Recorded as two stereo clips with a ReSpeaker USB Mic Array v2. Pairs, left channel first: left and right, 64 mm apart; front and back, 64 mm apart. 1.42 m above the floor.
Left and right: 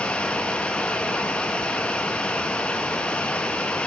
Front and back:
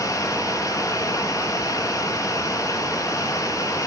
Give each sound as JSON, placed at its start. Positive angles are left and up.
{"t": 0.0, "sound": "running water", "azimuth_deg": 15, "distance_m": 2.0}